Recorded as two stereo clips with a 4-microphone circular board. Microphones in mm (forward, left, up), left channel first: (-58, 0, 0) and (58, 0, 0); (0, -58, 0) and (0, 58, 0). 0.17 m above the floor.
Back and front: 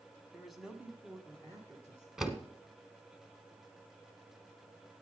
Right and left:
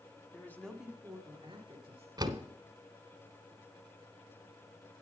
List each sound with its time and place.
0.3 s a man speaking: 100° right, 1.1 m; by 2.1 s 55° left, 2.0 m
2.2 s a door slam: 85° left, 0.9 m